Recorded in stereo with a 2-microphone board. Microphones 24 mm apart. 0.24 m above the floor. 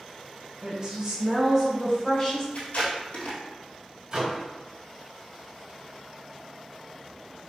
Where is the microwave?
30° right (ahead or behind), 0.8 m.